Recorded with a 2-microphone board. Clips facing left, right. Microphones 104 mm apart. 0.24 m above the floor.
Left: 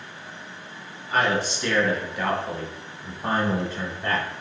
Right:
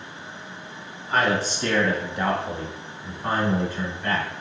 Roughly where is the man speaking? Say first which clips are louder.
Right 1 dB; right.